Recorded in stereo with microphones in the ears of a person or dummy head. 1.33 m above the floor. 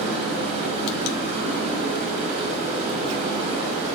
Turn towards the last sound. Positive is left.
turn(degrees=-35)  # may be behind; listen again after turning